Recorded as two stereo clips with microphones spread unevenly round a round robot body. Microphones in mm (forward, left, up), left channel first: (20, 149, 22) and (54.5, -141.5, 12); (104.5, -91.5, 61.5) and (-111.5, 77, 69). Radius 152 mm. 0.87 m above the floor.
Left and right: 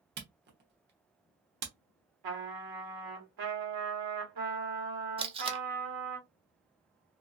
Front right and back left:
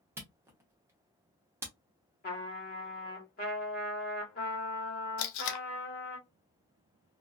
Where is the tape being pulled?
10° right, 0.5 m.